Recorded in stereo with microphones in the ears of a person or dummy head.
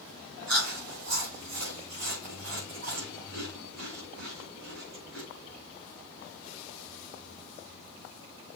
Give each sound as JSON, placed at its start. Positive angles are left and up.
{"t": 0.5, "sound": "chewing", "side_deg": -75, "distance_m": 4.5}